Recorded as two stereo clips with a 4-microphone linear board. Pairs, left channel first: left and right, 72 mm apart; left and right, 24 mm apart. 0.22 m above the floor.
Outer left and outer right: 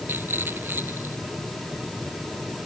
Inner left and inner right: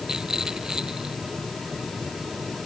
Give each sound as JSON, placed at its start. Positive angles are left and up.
{"t": 0.1, "sound": "a rattle", "side_deg": -30}